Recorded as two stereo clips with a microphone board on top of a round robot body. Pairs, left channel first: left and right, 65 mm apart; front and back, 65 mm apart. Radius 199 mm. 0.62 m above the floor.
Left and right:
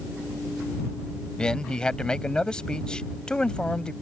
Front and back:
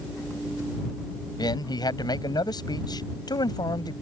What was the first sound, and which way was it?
A man speaking, 10° left.